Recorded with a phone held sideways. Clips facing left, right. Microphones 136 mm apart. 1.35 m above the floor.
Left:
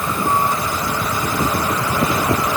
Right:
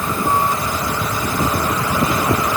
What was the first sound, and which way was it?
Only background noise.